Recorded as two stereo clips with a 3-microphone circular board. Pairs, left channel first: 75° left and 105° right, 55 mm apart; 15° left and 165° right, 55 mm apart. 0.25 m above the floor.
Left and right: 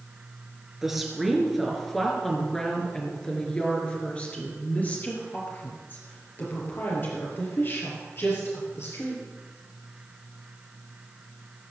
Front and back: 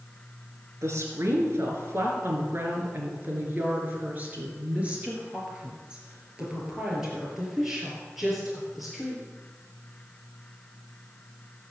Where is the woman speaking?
170° left, 4 m; by 9.2 s 105° left, 6 m.